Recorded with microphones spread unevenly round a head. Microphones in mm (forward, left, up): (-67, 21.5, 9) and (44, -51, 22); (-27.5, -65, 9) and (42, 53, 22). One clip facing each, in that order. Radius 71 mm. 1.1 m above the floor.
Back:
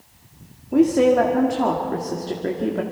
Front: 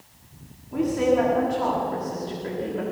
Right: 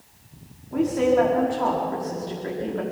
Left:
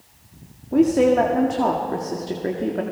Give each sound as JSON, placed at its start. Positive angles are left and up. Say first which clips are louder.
{"t": 0.7, "sound": "a woman speaking", "louder": "back 6 dB, left 4 dB", "azimuth_deg": 105, "distance_m": 2.0}